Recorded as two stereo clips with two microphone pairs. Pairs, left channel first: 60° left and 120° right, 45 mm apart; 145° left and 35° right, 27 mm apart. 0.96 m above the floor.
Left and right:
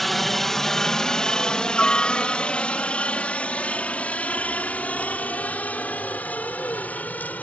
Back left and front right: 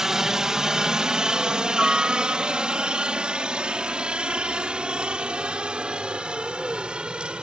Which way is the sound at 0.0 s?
25° right.